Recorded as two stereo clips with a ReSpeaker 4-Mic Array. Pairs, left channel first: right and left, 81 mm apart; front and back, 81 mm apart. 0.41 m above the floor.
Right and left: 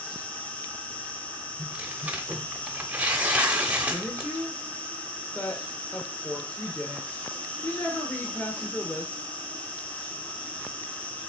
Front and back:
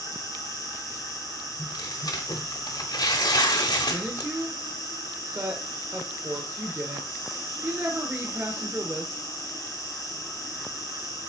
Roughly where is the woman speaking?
Behind right.